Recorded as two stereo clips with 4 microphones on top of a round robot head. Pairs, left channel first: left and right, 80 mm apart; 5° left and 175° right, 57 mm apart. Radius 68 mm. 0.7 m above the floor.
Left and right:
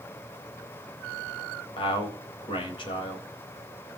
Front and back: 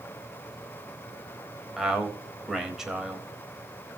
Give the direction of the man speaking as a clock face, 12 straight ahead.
9 o'clock.